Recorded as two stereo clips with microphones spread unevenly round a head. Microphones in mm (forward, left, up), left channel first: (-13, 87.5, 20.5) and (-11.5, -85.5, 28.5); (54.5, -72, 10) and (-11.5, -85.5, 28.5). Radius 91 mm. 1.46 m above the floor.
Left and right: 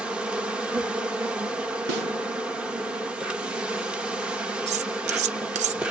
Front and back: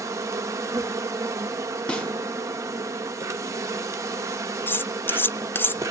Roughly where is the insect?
Behind.